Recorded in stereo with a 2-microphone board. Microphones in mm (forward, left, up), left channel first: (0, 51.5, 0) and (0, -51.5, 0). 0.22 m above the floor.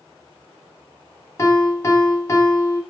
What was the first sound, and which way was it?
A piano, 30° left (ahead or behind).